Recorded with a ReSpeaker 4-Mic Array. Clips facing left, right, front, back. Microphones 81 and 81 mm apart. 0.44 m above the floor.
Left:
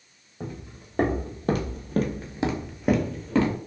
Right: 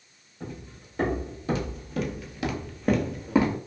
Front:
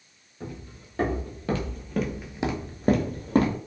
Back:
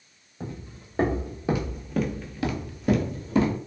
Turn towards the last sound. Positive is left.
turn(degrees=-20)